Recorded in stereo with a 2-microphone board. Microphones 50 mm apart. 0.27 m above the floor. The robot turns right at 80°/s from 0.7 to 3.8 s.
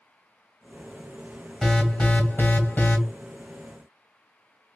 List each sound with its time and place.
1.6 s an alarm: 15° left, 1.2 m; by 3.0 s 125° left, 1.2 m